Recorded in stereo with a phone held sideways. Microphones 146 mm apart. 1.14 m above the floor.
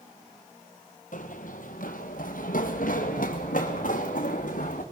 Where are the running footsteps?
60° left (ahead or behind), 2 m.